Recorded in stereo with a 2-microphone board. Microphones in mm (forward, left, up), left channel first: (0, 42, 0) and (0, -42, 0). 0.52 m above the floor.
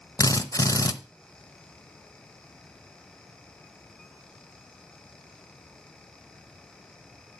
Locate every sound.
0.2 s a drill: 45° left (ahead or behind), 0.7 m